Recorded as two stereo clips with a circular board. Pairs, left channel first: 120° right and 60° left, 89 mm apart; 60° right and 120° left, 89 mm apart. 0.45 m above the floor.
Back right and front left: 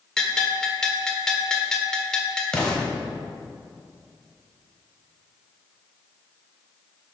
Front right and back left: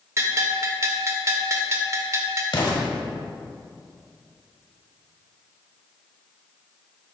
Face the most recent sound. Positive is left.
turn(degrees=-40)